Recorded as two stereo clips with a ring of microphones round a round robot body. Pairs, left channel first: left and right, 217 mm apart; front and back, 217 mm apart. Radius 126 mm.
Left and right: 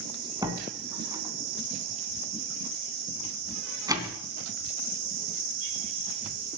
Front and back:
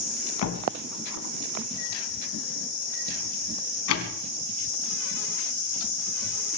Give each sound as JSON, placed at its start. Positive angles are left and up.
{"t": 0.4, "sound": "a door slam", "azimuth_deg": -15, "distance_m": 2.5}